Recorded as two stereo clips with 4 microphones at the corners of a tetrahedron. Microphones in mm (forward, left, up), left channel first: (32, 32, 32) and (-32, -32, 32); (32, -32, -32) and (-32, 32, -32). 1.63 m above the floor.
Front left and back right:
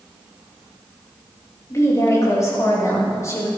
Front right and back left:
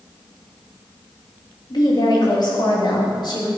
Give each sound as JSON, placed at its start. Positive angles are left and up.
{"t": 1.7, "sound": "a woman speaking", "azimuth_deg": -10, "distance_m": 3.0}